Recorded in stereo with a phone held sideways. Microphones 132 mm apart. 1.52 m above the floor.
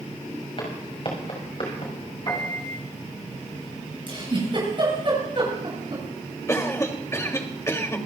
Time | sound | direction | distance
0.6 | footsteps | 45° left (ahead or behind) | 7 m
2.3 | a piano | 35° left (ahead or behind) | 5 m
4.1 | a giggle | 40° right (ahead or behind) | 10 m
6.5 | a cough | 20° left (ahead or behind) | 2.5 m